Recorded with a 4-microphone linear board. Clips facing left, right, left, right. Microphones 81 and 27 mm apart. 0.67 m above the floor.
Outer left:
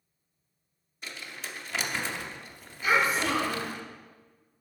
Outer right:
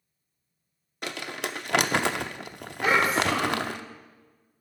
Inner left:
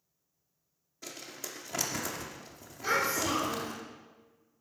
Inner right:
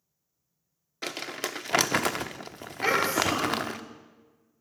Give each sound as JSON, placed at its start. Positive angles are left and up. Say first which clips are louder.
{"t": 1.0, "sound": "crumpling", "louder": "outer right 8 dB, inner right 10 dB", "side_deg": -70, "distance_m": 0.6}
{"t": 2.8, "sound": "a child speaking", "louder": "outer right 2 dB, inner right 5 dB", "side_deg": -70, "distance_m": 8.5}